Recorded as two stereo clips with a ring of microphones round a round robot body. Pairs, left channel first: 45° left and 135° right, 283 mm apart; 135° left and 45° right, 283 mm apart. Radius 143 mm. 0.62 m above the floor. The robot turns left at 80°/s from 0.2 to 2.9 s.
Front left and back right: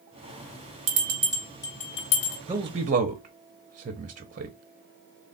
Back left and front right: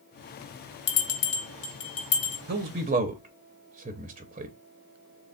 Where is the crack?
No crack in this recording.